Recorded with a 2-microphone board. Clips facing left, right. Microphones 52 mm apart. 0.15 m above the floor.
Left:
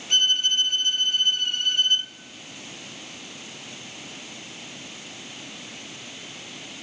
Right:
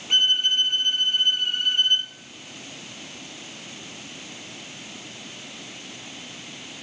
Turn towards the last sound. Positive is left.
turn(degrees=-10)  # may be behind; listen again after turning